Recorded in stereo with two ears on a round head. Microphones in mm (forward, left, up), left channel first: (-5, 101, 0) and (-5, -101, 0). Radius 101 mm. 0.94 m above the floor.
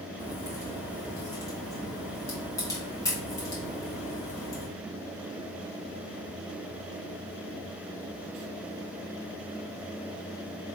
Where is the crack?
15° left (ahead or behind), 1.0 m.